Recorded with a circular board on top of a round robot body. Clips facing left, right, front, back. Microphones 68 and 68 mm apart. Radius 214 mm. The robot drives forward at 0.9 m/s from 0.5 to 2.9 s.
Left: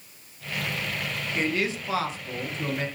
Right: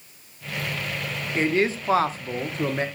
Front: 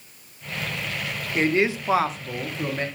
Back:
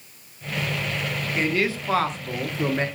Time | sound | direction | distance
1.4 | a man speaking | 45° right | 1.5 m